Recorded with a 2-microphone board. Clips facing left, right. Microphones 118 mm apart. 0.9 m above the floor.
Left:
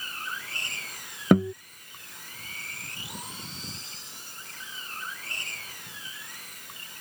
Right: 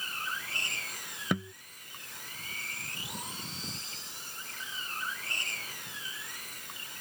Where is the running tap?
I don't hear a running tap.